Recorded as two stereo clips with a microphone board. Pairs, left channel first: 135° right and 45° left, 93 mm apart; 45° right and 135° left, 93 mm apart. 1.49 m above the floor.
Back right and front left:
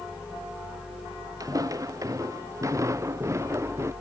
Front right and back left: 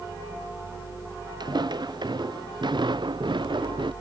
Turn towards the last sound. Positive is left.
turn(degrees=105)